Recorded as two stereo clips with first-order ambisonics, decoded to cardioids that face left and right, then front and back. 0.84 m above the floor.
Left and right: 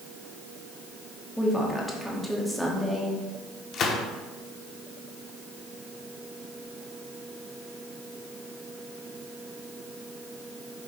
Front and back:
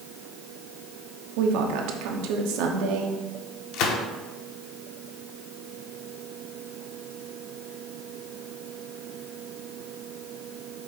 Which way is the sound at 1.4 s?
Straight behind.